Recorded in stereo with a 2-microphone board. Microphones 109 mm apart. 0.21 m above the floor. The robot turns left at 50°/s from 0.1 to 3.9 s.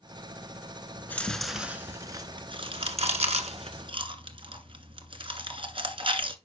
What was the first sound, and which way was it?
Chewing, 20° left (ahead or behind).